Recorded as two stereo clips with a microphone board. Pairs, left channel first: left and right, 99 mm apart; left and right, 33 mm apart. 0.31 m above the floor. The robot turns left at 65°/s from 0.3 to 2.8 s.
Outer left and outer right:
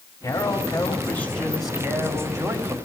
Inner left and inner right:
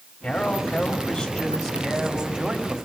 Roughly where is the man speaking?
Left.